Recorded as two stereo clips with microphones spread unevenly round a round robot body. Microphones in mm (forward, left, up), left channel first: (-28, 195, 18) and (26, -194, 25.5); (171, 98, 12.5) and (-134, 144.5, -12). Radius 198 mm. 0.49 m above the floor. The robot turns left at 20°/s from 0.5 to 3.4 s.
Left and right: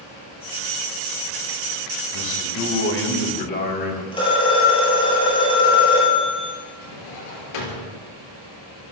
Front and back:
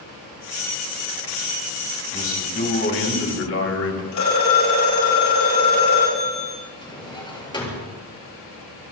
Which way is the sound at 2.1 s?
55° left.